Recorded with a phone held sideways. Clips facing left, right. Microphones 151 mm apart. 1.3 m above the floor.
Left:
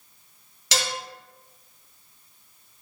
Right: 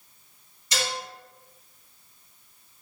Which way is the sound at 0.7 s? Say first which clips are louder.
Left 1 dB; 75° left (ahead or behind).